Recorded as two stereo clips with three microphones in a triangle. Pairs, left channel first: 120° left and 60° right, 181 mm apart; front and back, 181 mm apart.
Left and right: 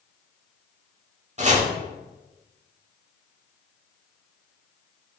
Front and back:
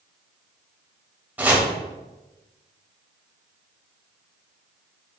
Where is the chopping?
100° right, 0.9 m.